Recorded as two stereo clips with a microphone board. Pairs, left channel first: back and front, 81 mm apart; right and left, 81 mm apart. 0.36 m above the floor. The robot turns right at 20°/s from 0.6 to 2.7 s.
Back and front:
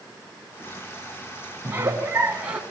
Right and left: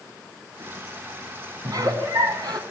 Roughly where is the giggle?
Ahead left.